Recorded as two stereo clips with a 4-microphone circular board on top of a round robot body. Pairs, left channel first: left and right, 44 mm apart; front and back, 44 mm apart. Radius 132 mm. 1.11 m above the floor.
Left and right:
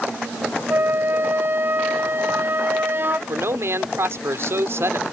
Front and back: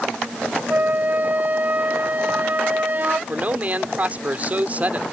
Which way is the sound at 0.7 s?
130° right.